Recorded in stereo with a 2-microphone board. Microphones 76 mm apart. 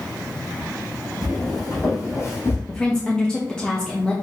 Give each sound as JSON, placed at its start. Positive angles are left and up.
{"t": 1.2, "sound": "footsteps", "side_deg": 55, "distance_m": 2.5}
{"t": 2.7, "sound": "a woman speaking", "side_deg": 10, "distance_m": 0.6}